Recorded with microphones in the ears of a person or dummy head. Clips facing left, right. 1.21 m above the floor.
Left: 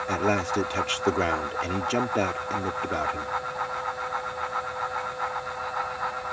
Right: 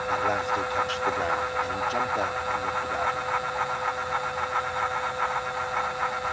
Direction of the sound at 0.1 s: 50° left (ahead or behind).